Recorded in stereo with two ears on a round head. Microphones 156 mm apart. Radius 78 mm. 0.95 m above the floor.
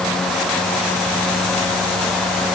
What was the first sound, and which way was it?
Only background noise.